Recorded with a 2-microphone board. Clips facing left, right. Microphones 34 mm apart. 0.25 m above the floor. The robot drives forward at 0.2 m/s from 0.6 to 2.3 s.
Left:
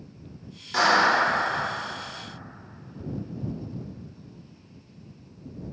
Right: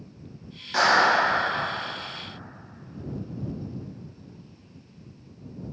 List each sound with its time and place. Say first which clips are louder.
0.7 s a clap: even; 10° right (ahead or behind), 0.9 m